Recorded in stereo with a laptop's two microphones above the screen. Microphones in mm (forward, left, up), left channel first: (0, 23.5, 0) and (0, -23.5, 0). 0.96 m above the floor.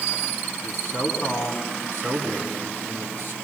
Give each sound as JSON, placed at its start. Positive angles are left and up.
{"t": 0.6, "sound": "a man speaking", "side_deg": 55, "distance_m": 6.0}